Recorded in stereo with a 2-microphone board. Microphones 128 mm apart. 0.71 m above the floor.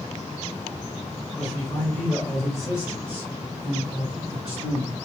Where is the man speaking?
30° left (ahead or behind), 1.2 m; by 5.0 s 40° right (ahead or behind), 1.9 m.